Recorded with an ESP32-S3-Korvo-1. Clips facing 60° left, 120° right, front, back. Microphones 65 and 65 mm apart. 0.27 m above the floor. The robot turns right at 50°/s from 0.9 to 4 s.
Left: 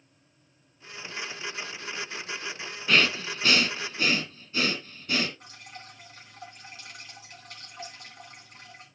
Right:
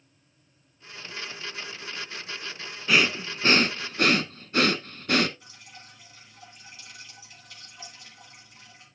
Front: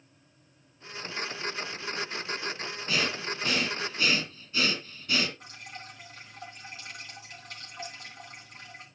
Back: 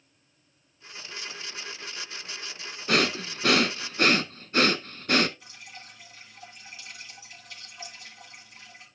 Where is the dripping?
30° left, 3 m.